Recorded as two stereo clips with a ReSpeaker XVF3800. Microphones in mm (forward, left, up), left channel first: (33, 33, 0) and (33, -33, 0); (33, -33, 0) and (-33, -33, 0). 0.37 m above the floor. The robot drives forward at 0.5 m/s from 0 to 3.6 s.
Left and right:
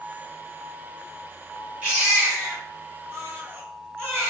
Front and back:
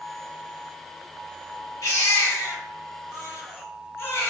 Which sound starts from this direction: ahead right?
A baby crying, at 1.8 s.